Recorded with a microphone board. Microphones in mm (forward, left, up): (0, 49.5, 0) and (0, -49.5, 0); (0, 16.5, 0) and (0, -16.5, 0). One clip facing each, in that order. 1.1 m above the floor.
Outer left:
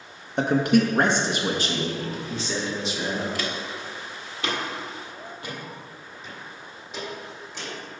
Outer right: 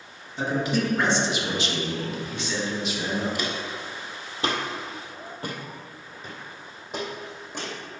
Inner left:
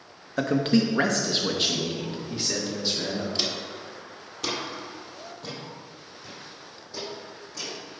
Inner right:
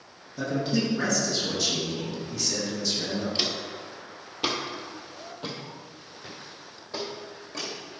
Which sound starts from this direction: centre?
Footsteps, at 3.4 s.